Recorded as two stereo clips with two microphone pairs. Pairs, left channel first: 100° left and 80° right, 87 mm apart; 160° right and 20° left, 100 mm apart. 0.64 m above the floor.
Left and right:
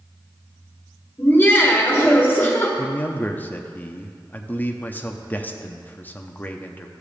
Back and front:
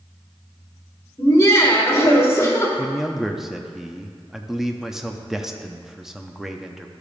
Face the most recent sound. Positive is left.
turn(degrees=110)